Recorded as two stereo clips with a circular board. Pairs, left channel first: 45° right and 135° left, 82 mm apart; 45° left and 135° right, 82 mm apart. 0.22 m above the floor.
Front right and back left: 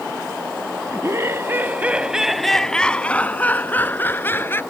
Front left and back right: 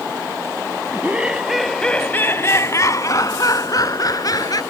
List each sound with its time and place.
0.9 s laughter: 165° left; by 4.6 s 15° left